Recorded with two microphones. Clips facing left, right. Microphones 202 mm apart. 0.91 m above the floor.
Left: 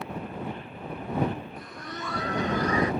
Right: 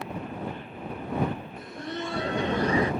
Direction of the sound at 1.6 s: 25° right (ahead or behind).